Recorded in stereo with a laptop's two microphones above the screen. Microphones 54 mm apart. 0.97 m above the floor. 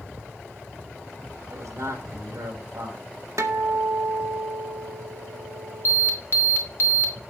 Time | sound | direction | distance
1.5 | a man speaking | 80° right | 5.5 m
3.4 | a guitar | 75° right (ahead or behind) | 1.8 m
5.8 | an alarm | 50° left (ahead or behind) | 2.5 m